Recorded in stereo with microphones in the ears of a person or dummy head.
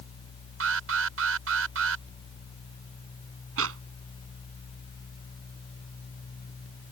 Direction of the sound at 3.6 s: 85° right.